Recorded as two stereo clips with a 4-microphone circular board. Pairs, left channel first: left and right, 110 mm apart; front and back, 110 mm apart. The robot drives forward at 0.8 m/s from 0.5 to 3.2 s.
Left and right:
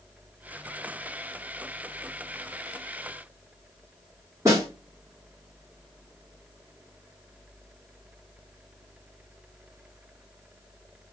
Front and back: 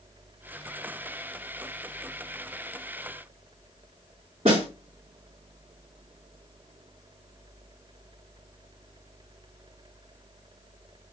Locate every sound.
4.5 s a snare drum: 155° right, 2.5 m